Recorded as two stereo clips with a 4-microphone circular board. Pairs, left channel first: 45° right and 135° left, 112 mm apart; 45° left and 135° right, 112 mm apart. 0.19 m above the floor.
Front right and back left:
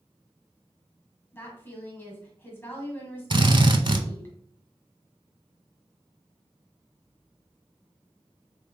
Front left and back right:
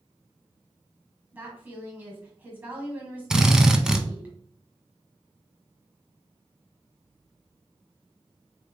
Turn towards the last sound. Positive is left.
turn(degrees=145)